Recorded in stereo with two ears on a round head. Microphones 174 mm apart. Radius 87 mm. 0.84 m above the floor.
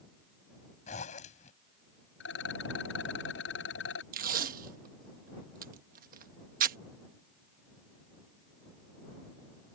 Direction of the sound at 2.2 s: 75° left (ahead or behind).